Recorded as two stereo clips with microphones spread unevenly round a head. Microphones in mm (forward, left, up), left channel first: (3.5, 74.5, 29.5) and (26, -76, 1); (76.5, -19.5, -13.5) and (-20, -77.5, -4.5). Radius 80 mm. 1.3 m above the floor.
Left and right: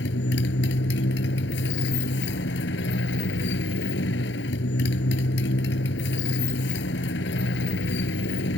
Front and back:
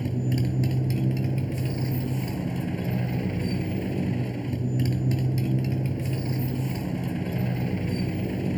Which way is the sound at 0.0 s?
120° left.